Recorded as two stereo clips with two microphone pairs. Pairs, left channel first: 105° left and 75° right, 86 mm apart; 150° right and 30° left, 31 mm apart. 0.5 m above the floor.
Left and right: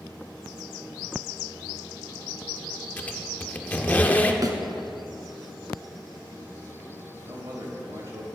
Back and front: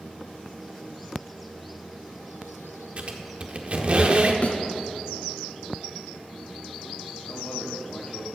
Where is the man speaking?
125° right, 2.5 m.